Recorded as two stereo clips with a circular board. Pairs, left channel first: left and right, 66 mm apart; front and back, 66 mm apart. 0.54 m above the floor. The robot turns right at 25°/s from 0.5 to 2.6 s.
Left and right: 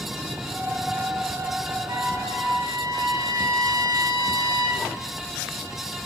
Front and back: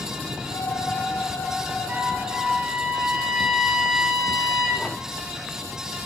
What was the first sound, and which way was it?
A trumpet, 115° right.